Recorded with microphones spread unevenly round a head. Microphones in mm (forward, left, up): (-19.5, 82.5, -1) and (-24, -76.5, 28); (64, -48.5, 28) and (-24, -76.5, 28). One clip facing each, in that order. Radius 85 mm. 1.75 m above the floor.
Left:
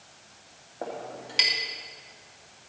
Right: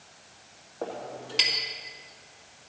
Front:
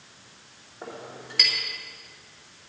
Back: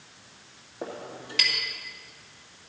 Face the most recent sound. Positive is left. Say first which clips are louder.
# right 1 dB, back 2 dB
turn(degrees=170)